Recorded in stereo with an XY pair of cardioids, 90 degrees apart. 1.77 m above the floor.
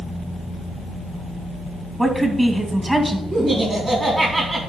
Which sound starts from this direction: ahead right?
Laughter, at 3.3 s.